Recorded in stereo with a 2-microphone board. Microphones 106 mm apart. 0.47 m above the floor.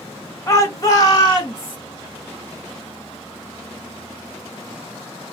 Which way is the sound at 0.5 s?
25° left (ahead or behind).